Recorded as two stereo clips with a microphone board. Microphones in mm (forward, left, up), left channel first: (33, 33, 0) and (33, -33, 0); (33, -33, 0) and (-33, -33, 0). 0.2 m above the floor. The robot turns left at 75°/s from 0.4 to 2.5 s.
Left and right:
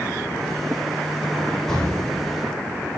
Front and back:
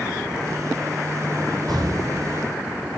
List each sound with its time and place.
1.7 s an explosion: 175° left, 9 m; by 2.4 s 120° left, 9 m